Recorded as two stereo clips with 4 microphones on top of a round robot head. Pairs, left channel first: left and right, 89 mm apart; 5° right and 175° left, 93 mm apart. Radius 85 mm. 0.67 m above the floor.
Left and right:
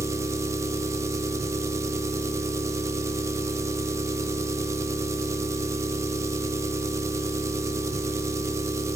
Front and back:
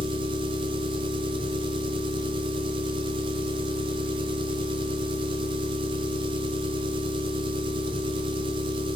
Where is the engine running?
150° right, 0.8 m.